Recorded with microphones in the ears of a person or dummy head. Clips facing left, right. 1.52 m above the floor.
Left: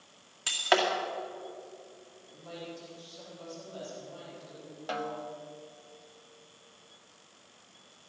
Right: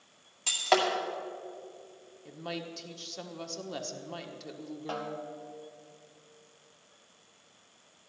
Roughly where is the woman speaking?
Right.